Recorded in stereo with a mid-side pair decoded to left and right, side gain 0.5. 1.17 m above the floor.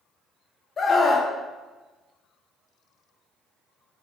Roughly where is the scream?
Ahead left.